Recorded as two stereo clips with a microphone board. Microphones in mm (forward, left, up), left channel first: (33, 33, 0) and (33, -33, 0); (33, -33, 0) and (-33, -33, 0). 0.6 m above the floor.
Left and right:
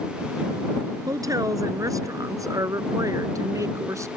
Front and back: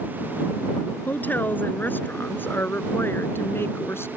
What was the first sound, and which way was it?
A woman speaking, 65° right.